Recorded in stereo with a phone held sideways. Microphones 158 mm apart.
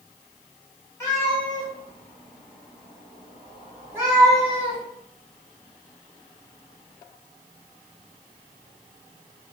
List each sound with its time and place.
1.0 s a cat meowing: 20° left (ahead or behind), 1.5 m; by 4.8 s 25° right (ahead or behind), 1.9 m